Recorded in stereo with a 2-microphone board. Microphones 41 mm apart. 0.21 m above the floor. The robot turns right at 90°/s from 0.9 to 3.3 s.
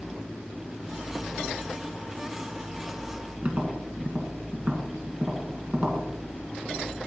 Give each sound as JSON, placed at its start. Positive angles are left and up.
{"t": 3.4, "sound": "tapping", "side_deg": -35, "distance_m": 1.9}